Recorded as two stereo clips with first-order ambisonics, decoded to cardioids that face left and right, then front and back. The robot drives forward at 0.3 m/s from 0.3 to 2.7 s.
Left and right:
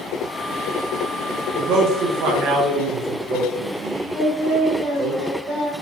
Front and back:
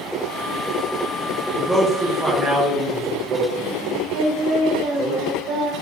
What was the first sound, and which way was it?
A man speaking, 80° right.